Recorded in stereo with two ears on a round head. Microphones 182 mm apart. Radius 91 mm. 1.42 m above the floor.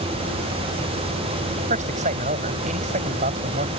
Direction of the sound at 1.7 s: 40° right (ahead or behind).